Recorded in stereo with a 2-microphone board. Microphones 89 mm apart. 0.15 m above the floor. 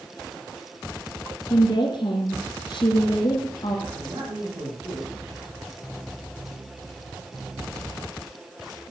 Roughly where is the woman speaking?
Left.